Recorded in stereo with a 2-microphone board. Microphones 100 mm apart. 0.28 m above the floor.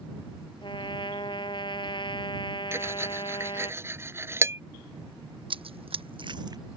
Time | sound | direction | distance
0.6 | a trumpet | 55° left (ahead or behind) | ?
2.7 | cutlery clinking | 25° right (ahead or behind) | ?
5.5 | running footsteps | 60° right (ahead or behind) | ?